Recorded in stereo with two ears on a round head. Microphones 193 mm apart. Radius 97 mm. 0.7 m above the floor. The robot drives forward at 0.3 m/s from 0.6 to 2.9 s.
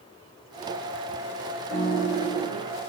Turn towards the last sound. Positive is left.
turn(degrees=85)